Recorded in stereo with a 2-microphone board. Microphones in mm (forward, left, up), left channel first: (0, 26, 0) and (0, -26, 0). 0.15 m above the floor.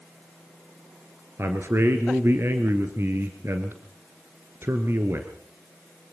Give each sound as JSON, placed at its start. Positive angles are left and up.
{"t": 1.4, "sound": "a man speaking", "side_deg": -50, "distance_m": 2.0}